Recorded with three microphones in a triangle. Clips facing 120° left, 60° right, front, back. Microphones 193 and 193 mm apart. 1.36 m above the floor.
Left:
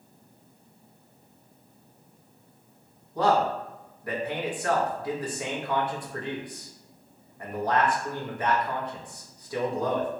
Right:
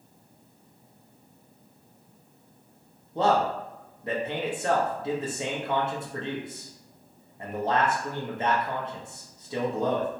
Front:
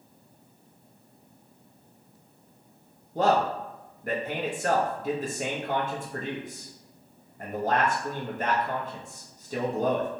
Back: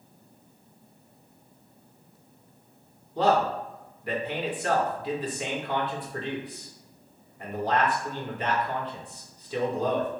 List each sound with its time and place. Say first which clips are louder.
3.1 s a man speaking: even, even; 10° right, 0.6 m